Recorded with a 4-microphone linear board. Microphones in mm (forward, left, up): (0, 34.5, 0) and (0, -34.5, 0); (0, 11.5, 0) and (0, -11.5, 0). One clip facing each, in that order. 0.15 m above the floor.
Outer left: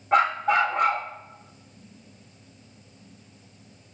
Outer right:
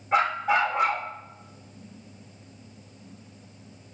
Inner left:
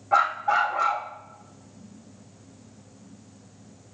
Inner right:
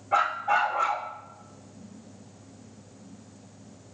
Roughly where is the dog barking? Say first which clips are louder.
Outer left 2 dB, inner left 2 dB; left.